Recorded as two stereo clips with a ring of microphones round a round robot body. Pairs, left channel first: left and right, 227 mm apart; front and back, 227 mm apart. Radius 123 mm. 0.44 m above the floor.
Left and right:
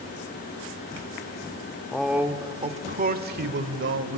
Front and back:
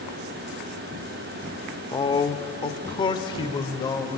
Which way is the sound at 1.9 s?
15° left.